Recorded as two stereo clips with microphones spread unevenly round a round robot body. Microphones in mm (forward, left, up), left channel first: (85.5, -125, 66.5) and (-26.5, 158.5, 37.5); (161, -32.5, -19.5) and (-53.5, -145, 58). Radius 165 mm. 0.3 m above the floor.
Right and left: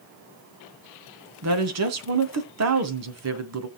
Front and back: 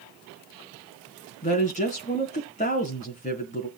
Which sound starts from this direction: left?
A woman speaking, at 1.4 s.